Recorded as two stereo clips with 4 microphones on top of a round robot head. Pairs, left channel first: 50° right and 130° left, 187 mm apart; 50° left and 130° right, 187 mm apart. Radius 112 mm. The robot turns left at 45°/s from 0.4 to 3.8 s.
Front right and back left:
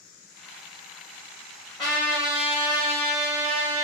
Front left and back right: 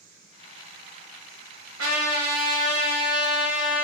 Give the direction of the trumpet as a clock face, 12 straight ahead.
4 o'clock.